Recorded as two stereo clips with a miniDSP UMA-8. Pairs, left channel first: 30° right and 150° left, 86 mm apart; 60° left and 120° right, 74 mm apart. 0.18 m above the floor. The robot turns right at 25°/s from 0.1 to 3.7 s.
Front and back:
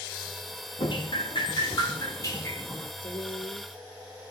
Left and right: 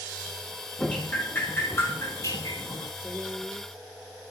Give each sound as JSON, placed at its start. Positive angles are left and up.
{"t": 0.8, "sound": "dripping", "azimuth_deg": -15, "distance_m": 3.0}
{"t": 3.0, "sound": "a woman speaking", "azimuth_deg": -45, "distance_m": 9.5}